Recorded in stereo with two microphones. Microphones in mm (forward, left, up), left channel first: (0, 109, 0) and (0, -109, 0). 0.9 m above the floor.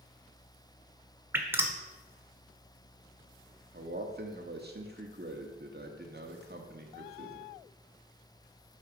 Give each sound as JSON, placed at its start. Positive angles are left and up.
{"t": 1.3, "sound": "dripping", "side_deg": -10, "distance_m": 1.1}
{"t": 3.7, "sound": "a man speaking", "side_deg": -50, "distance_m": 1.5}